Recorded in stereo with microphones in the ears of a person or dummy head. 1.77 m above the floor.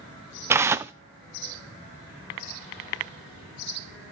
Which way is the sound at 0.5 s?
15° right (ahead or behind).